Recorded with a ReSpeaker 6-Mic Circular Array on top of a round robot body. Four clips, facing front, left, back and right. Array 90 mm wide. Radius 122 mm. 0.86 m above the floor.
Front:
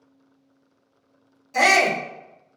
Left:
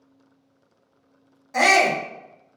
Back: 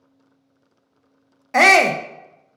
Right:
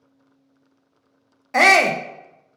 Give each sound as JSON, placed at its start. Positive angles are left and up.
{"t": 1.5, "sound": "a shout", "azimuth_deg": -150, "distance_m": 0.6}